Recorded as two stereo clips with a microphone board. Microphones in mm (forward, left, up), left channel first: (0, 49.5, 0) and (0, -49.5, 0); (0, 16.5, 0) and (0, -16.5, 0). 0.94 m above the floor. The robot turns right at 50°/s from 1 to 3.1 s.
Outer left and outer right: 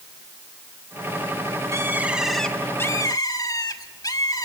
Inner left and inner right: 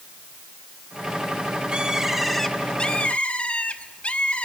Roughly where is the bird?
Ahead right.